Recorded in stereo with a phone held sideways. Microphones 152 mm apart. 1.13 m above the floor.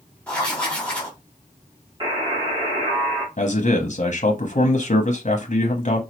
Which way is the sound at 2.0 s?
30° right (ahead or behind).